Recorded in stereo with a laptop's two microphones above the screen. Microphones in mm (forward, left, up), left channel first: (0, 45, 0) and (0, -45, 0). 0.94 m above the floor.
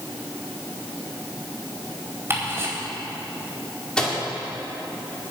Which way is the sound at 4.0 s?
10° left (ahead or behind).